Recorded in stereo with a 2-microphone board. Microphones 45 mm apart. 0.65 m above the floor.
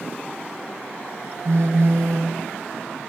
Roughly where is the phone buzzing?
Right.